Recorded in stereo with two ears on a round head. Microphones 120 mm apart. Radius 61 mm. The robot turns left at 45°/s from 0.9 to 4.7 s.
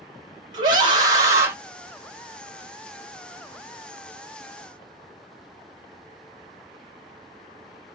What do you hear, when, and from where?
0.5 s a scream: 35° right (ahead or behind), 1.4 m; by 1.5 s 15° right (ahead or behind), 1.4 m